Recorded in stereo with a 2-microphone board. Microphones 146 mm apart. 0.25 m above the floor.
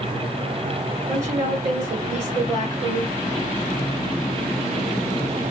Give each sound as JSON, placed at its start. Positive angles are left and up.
{"t": 1.1, "sound": "a woman speaking", "side_deg": -50, "distance_m": 3.0}